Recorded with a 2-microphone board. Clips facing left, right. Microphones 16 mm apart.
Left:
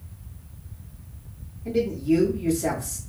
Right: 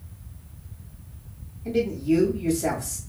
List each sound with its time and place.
1.6 s a man speaking: 25° right (ahead or behind), 1.1 m